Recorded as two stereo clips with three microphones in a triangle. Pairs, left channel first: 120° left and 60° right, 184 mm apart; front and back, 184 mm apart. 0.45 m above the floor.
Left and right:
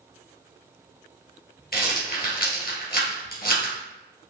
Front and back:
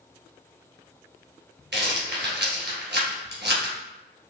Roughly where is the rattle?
Behind left.